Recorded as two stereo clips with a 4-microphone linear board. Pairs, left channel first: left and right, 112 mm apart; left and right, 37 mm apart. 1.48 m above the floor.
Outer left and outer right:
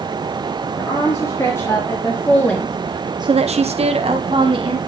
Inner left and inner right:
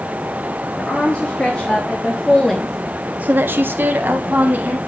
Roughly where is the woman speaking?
Left.